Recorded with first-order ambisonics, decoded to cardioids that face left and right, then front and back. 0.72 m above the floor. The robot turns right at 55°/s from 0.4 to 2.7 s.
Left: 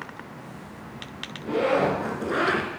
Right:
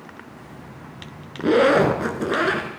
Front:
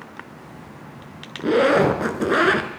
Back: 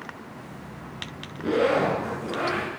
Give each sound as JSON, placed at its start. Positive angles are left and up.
{"t": 1.4, "sound": "a zipper", "azimuth_deg": -75, "distance_m": 1.4}